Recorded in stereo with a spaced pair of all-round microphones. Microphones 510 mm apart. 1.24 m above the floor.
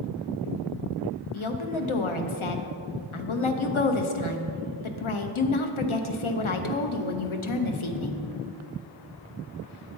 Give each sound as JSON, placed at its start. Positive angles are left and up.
{"t": 1.3, "sound": "a woman speaking", "side_deg": 70, "distance_m": 0.7}